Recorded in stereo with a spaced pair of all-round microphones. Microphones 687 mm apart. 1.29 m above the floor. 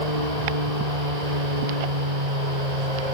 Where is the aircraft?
65° right (ahead or behind); by 3.1 s 70° right (ahead or behind).